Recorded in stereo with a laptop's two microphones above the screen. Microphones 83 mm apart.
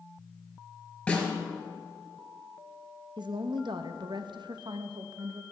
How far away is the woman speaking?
About 0.6 m.